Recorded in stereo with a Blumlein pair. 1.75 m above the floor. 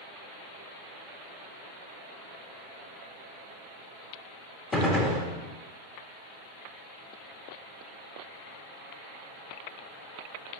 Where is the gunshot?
15° left, 1.1 m.